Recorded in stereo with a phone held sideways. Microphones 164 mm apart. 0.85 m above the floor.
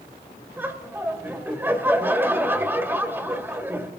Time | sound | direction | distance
0.6 | laughter | 15° right (ahead or behind) | 2 m